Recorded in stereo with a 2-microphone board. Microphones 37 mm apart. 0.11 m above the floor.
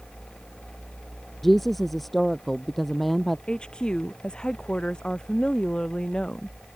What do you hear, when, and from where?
1.4 s a woman speaking: centre (ahead or behind)
3.5 s a woman speaking: 20° left (ahead or behind)